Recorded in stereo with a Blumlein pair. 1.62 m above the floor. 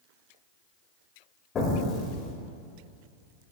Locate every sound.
1.6 s an explosion: 25° left, 2 m